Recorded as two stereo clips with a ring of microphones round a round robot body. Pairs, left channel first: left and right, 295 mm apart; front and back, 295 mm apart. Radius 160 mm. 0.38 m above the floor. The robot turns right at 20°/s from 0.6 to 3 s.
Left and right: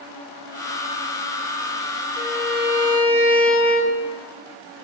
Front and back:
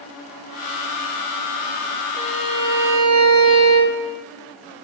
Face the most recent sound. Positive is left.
turn(degrees=40)